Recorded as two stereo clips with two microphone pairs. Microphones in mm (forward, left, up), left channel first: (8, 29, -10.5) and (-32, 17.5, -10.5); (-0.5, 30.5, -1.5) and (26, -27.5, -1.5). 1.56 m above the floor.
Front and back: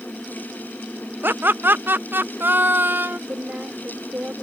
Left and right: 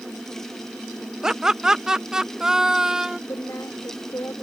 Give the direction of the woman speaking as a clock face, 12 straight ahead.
7 o'clock.